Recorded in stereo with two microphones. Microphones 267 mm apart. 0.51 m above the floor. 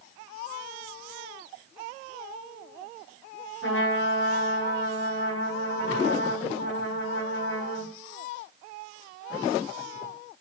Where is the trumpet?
50° left (ahead or behind), 4 m.